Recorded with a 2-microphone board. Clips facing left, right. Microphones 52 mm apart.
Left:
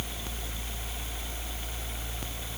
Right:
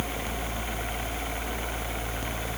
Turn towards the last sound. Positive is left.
No sound to turn to.